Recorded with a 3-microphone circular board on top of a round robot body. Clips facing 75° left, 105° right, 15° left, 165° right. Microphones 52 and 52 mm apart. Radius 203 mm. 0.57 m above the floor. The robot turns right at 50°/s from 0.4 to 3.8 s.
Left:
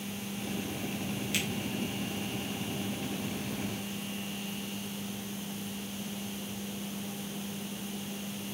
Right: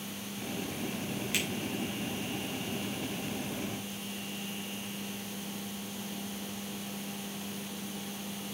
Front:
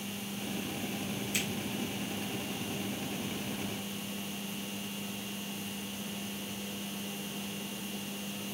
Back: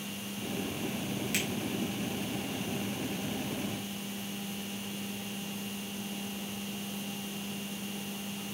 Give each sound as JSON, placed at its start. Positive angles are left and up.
{"t": 1.3, "sound": "a finger snap", "azimuth_deg": -175, "distance_m": 4.5}